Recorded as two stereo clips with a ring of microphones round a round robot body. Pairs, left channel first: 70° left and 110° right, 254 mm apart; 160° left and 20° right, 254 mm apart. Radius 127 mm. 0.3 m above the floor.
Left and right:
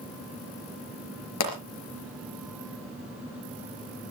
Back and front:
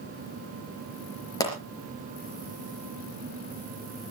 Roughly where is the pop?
Left.